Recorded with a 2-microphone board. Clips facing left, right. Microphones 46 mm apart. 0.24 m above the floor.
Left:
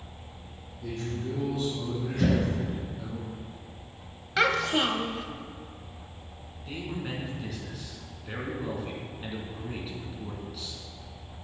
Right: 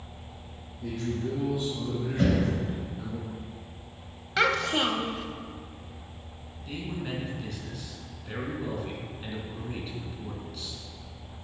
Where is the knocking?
40° right (ahead or behind), 2.5 m.